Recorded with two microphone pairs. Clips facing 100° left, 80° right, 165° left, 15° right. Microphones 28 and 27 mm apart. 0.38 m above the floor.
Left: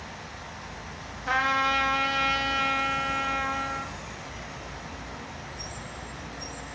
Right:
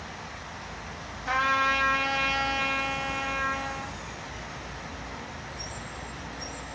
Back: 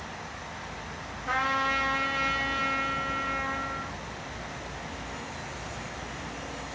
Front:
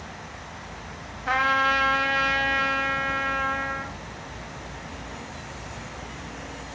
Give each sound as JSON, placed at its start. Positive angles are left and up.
{"t": 1.3, "sound": "a trumpet", "azimuth_deg": 25, "distance_m": 1.6}